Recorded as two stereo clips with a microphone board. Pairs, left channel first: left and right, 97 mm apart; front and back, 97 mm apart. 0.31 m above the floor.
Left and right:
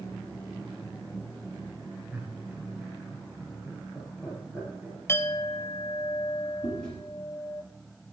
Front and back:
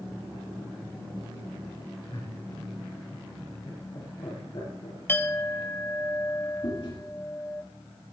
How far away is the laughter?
About 4.5 m.